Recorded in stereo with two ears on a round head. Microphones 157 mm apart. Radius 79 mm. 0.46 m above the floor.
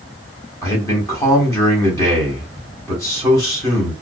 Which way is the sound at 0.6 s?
15° left (ahead or behind).